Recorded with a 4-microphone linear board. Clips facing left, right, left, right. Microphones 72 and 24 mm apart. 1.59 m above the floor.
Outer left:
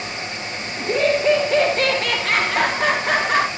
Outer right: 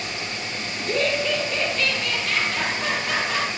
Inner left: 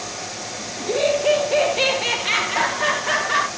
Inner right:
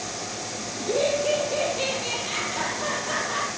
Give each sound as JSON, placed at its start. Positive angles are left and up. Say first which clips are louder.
{"t": 0.8, "sound": "laughter", "louder": "outer left 5 dB, inner left 4 dB", "side_deg": 15, "distance_m": 1.3}